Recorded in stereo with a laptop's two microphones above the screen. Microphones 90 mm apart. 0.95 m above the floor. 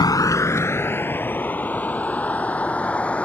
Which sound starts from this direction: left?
A vehicle, at 0.0 s.